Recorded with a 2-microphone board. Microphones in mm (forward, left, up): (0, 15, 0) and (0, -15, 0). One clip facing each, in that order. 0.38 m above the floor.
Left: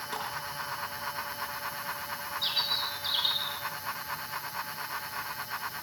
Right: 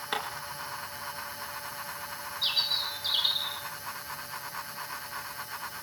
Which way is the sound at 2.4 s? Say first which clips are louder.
Right 2 dB; 10° right (ahead or behind).